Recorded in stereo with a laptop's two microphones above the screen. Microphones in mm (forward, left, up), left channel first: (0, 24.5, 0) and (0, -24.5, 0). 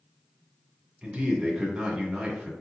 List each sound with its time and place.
1.0 s a man speaking: 20° right (ahead or behind), 1.8 m